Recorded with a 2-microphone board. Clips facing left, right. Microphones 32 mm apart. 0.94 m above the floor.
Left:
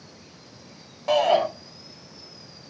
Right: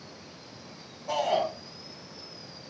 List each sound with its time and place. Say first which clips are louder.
1.1 s a shout: left 7 dB; 80° left, 5 m